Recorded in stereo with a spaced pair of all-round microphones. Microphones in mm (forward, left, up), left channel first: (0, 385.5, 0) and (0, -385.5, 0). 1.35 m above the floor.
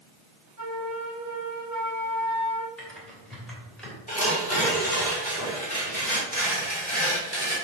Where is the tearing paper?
10° left (ahead or behind), 2.5 m.